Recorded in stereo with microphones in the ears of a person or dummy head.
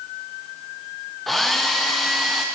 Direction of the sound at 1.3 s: 5° left (ahead or behind).